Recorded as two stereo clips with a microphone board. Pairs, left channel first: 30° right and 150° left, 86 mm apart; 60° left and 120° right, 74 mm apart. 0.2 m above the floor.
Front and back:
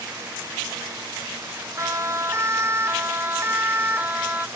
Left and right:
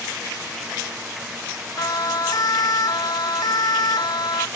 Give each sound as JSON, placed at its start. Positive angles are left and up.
{"t": 1.8, "sound": "a siren", "azimuth_deg": 95}